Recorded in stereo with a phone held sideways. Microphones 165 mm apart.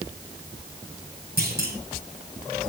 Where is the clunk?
70° right (ahead or behind), 7.5 m.